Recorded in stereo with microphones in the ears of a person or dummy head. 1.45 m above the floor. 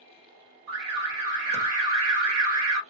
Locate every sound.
0.7 s an alarm: 75° right (ahead or behind), 1.2 m